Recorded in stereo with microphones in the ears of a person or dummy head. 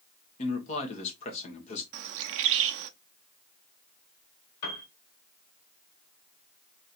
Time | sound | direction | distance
0.4 | a man speaking | 35° left (ahead or behind) | 1.2 m
1.9 | a bird | 60° right (ahead or behind) | 0.5 m
4.6 | a piano | 50° left (ahead or behind) | 1.4 m